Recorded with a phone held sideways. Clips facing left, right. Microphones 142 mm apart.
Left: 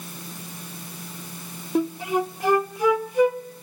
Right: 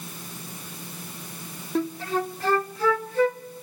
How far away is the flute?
About 0.6 m.